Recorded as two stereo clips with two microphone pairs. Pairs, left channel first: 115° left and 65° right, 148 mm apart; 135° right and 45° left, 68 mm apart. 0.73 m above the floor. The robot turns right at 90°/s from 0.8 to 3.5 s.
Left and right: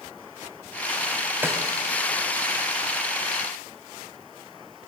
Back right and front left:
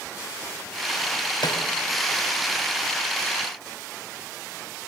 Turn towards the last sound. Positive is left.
turn(degrees=45)